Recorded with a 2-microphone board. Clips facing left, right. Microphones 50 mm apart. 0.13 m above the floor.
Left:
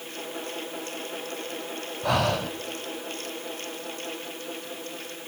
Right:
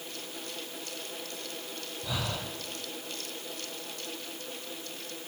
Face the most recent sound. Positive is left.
turn(degrees=60)  # may be behind; listen again after turning